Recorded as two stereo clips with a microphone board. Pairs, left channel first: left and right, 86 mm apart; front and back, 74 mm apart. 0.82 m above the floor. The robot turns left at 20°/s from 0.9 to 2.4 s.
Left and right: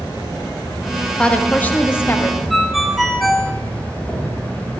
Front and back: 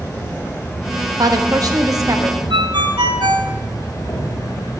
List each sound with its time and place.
0.0 s an insect: 55° left, 3.5 m; by 4.8 s 25° left, 3.5 m
1.2 s a woman speaking: 165° left, 0.9 m; by 2.4 s 140° left, 0.9 m
2.5 s a ringtone: straight behind, 0.7 m